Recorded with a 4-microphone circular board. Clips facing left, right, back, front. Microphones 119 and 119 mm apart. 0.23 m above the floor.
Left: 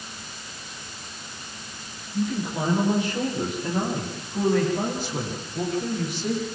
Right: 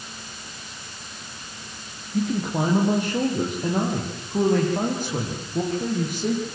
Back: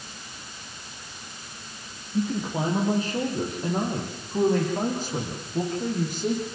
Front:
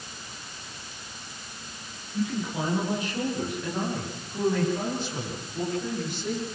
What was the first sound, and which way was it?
A man speaking, 120° right.